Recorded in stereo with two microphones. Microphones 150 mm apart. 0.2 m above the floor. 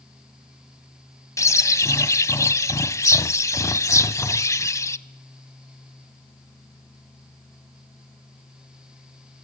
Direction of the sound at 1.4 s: 20° left (ahead or behind).